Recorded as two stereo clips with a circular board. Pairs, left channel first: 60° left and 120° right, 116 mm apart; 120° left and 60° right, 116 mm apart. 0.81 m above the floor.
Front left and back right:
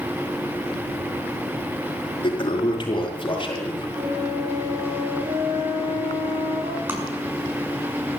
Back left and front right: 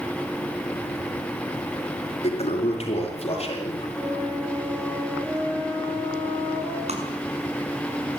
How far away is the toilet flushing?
About 5.5 m.